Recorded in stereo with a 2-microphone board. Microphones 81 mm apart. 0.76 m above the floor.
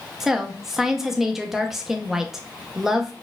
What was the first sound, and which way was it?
A woman speaking, 5° right (ahead or behind).